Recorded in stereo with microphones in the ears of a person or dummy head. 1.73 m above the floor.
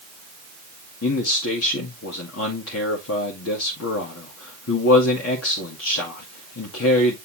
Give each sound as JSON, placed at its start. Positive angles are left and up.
{"t": 1.0, "sound": "a man speaking", "side_deg": 85, "distance_m": 1.8}